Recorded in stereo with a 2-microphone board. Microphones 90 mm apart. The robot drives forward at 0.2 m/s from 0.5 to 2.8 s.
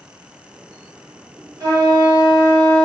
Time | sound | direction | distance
1.6 | a flute | 35° right (ahead or behind) | 1.5 m